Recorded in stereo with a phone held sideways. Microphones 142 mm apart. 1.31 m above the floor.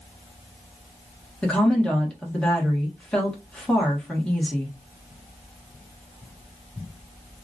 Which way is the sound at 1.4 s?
5° left (ahead or behind).